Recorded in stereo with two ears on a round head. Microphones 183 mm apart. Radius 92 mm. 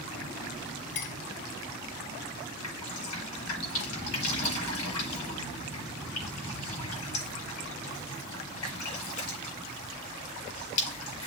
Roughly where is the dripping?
Left.